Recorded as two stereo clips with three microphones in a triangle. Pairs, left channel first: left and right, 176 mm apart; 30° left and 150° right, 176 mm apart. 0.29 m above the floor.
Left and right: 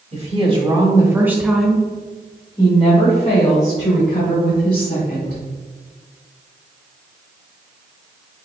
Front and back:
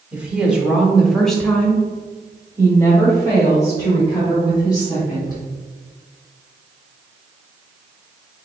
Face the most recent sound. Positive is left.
turn(degrees=95)